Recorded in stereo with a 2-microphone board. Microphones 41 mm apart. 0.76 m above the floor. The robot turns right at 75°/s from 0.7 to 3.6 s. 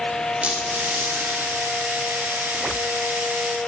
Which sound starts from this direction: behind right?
A squeak, at 0.4 s.